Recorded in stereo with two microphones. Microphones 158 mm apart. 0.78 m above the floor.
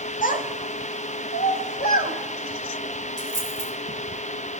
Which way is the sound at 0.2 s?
55° left (ahead or behind).